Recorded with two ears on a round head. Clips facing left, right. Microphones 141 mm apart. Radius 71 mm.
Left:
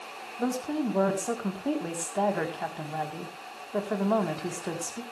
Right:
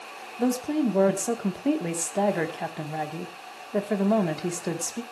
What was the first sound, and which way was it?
A woman speaking, 20° right (ahead or behind).